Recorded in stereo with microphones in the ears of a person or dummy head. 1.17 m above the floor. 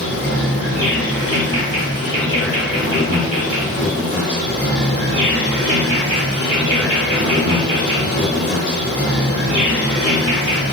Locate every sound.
0.0 s an insect: 75° left (ahead or behind), 1.5 m